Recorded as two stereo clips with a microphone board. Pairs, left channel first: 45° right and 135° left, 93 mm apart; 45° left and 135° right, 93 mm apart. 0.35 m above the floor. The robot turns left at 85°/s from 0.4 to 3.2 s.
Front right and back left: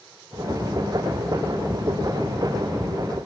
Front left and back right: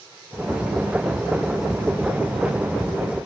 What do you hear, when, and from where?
Only background noise.